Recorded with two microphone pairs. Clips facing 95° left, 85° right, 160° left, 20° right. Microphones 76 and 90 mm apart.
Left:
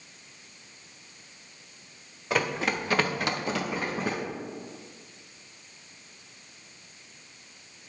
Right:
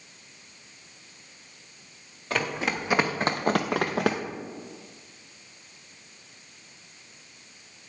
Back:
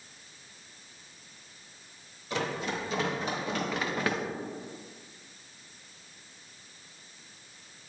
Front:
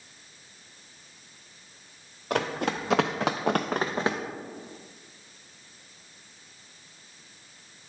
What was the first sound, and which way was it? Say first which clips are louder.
Running footsteps: left 1 dB, front 4 dB; 10° left.